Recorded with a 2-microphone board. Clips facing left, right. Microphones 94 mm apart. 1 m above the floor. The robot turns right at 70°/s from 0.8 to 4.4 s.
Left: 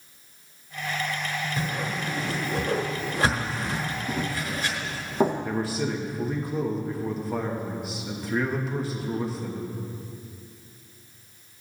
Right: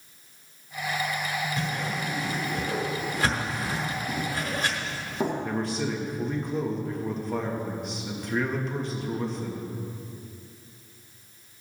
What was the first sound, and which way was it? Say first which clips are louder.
A whoosh: even; 35° left (ahead or behind).